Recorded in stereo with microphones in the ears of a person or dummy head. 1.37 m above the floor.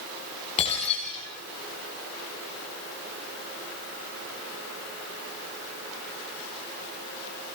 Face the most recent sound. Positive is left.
turn(degrees=35)  # may be behind; listen again after turning